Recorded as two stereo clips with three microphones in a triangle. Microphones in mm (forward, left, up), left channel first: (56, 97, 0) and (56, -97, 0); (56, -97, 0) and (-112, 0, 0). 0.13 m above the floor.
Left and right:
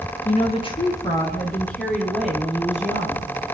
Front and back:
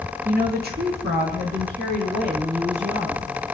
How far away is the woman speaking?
About 2.5 m.